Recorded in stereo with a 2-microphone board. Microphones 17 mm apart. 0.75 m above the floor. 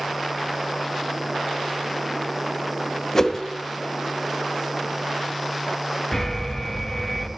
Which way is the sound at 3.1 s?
25° left (ahead or behind).